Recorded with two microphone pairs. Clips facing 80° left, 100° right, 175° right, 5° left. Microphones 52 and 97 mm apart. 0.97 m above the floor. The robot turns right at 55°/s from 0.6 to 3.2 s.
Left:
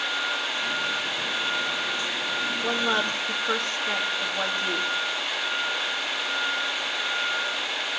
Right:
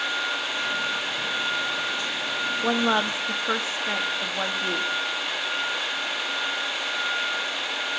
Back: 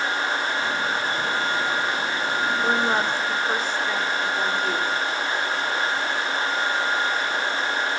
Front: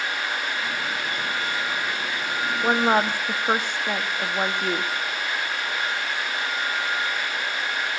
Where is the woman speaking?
55° right, 1.5 m; by 4.9 s 25° right, 1.5 m.